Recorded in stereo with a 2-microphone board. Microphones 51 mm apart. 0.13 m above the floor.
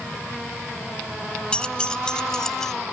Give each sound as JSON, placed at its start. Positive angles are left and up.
{"t": 1.5, "sound": "keys jangling", "side_deg": 20, "distance_m": 0.7}